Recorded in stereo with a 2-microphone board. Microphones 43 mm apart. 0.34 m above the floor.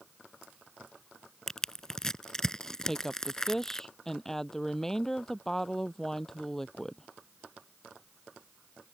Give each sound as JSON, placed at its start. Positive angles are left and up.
{"t": 1.5, "sound": "crushing", "side_deg": 10}
{"t": 2.8, "sound": "a woman speaking", "side_deg": 10}